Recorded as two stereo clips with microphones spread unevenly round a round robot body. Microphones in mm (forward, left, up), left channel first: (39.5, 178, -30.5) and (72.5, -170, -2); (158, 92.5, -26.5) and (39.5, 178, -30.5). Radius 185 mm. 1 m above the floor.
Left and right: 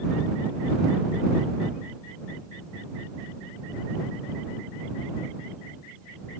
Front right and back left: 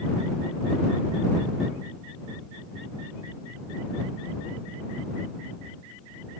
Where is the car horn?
I don't hear a car horn.